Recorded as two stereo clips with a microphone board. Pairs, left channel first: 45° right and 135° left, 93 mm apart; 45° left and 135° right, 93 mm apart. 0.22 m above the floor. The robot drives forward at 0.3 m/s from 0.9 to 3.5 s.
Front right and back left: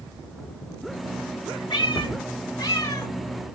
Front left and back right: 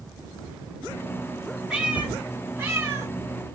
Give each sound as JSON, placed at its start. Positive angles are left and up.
{"t": 1.7, "sound": "a cat meowing", "azimuth_deg": -55, "distance_m": 1.0}